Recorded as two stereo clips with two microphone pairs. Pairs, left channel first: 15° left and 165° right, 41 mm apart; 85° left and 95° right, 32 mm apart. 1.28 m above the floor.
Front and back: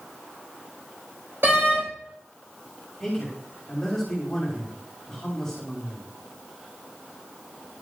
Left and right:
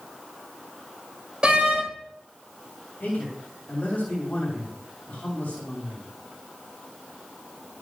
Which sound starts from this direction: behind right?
A door slam, at 1.4 s.